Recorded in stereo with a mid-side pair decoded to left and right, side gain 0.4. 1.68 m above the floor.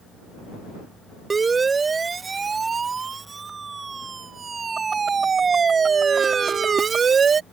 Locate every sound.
1.3 s a siren: 40° right; by 7.4 s 50° right